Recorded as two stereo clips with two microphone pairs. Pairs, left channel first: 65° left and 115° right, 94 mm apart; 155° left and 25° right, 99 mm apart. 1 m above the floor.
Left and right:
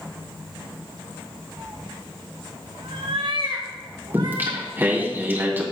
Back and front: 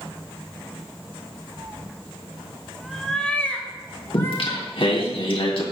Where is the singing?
175° left, 2.5 m.